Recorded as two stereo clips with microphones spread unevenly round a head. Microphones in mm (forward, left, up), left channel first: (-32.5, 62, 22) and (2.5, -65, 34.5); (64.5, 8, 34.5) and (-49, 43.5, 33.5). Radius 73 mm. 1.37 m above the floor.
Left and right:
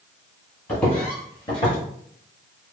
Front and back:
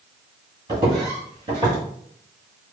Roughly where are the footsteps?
Behind.